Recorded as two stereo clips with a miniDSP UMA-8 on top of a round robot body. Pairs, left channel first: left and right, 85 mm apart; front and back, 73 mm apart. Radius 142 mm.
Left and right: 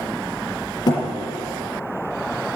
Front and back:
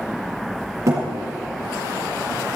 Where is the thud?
130° left, 4.5 m.